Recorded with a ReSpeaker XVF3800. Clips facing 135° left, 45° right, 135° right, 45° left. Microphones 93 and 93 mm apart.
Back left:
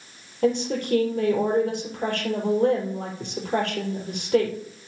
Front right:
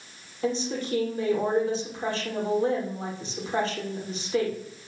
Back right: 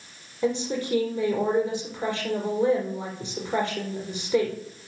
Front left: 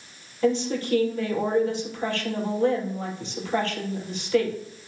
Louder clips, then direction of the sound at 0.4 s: Back left 5 dB, front left 3 dB; 150° left.